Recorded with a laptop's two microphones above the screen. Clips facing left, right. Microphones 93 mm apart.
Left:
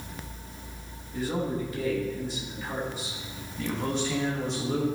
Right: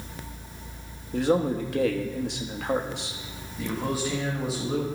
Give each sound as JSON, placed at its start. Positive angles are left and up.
{"t": 1.1, "sound": "a man speaking", "side_deg": -70, "distance_m": 1.3}
{"t": 3.6, "sound": "a man speaking", "side_deg": -5, "distance_m": 1.2}